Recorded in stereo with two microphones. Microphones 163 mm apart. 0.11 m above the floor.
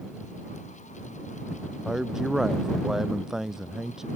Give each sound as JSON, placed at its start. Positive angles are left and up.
{"t": 1.9, "sound": "a man speaking", "side_deg": -5}